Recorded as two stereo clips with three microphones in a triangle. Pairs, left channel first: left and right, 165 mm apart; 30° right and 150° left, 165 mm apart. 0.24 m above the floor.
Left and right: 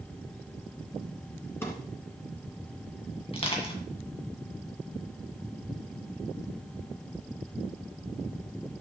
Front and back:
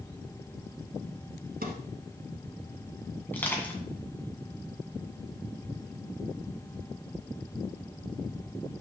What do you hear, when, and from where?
1.6 s a drawer: 165° left, 1.6 m
3.3 s crushing: 45° left, 2 m